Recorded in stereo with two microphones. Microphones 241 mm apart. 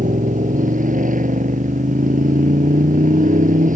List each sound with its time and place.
0.0 s a motorcycle: 35° right (ahead or behind)